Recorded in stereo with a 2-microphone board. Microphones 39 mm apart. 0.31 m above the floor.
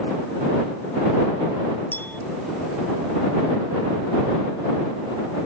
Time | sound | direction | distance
1.9 | a clink | 65° left (ahead or behind) | ?